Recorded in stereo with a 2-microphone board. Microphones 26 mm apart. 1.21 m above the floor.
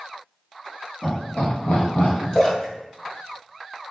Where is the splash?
25° left (ahead or behind), 1.1 m.